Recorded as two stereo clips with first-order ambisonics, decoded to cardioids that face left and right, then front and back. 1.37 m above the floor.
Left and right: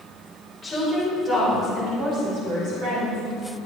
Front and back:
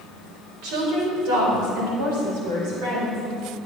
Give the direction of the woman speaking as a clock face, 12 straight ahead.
6 o'clock.